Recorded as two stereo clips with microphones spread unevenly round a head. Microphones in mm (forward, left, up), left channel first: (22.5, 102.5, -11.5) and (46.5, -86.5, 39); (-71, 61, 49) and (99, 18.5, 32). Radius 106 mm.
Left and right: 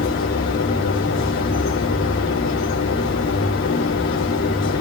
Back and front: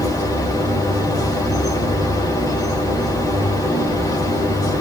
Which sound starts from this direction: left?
A machine running, at 0.0 s.